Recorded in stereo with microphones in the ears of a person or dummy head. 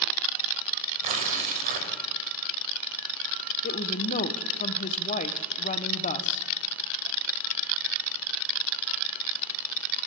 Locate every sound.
1.0 s tearing paper: 45° right (ahead or behind), 2 m
3.6 s a woman speaking: 40° left (ahead or behind), 0.9 m